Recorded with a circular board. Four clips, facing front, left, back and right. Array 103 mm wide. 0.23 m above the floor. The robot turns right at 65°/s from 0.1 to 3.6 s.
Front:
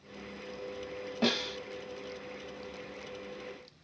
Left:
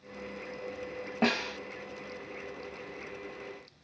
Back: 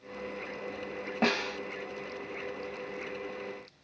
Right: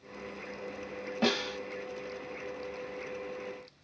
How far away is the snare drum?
About 1.0 m.